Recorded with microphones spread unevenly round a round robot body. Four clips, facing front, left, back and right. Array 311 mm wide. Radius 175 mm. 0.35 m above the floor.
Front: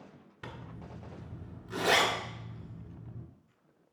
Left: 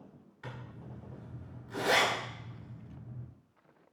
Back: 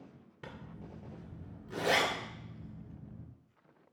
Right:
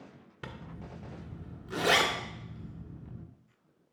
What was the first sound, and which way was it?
A zipper, 65° right.